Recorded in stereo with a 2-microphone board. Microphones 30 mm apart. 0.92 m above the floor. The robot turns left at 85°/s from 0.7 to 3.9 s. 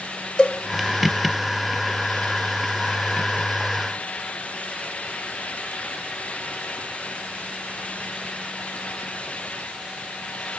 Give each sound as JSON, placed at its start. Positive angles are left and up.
{"t": 0.4, "sound": "a cowbell", "side_deg": 25, "distance_m": 1.4}